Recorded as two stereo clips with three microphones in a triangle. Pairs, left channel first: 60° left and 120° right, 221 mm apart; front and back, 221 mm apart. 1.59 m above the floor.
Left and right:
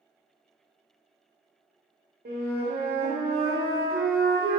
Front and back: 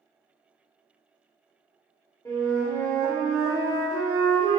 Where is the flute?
75° right, 0.6 m.